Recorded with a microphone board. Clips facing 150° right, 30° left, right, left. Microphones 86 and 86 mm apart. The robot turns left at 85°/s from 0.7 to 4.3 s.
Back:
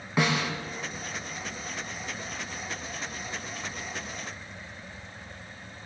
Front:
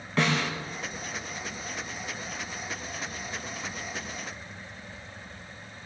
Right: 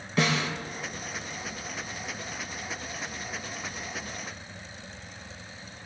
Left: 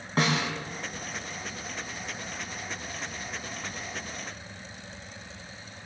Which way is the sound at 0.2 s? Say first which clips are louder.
Even, even; 135° left.